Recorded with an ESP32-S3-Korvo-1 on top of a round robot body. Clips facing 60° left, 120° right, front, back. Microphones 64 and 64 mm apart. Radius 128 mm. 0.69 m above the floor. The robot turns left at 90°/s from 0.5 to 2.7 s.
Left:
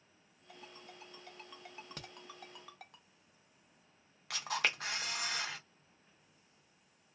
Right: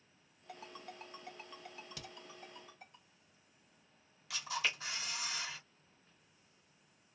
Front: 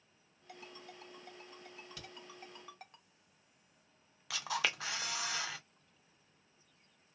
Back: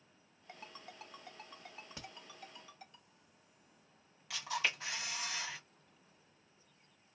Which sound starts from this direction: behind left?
A crack, at 2.0 s.